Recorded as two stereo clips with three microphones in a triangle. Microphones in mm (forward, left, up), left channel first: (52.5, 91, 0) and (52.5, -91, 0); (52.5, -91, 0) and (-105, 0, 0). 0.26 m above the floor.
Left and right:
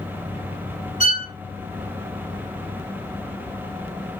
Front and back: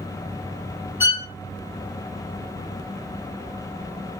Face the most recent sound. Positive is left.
turn(degrees=75)